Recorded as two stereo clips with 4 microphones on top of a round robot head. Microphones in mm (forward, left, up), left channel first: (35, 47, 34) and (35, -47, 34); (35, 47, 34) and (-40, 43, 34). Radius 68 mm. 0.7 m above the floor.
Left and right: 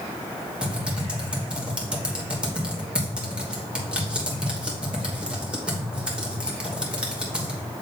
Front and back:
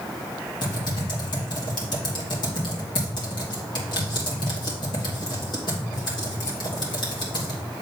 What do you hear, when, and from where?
0.6 s typing on a keyboard: 10° right, 3 m